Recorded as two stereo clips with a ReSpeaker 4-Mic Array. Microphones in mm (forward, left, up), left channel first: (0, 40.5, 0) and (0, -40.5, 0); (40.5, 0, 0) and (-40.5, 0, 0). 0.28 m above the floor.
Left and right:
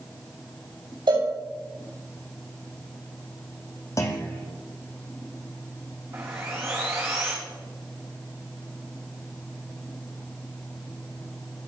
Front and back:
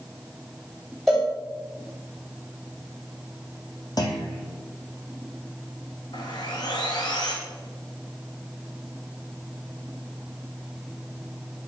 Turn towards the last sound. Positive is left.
turn(degrees=-35)